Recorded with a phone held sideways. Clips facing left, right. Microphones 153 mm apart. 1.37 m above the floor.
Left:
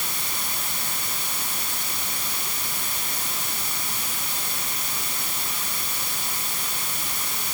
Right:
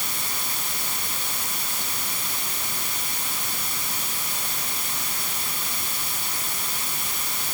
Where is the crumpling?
No crumpling in this recording.